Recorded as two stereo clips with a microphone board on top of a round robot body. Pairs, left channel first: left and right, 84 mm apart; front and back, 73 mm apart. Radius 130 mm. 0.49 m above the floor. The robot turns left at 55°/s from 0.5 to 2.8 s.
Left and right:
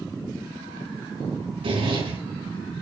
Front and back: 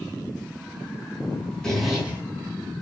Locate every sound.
1.6 s a zipper: 80° right, 4.5 m; by 2.2 s 110° right, 4.5 m